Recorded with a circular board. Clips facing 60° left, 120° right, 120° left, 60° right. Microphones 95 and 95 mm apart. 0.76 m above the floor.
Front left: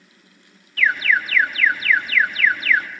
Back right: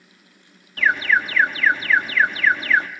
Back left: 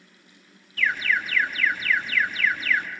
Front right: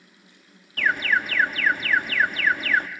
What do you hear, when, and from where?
0.8 s an alarm: 70° right, 1.7 m